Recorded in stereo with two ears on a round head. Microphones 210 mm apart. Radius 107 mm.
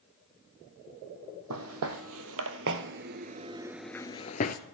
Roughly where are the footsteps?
Right.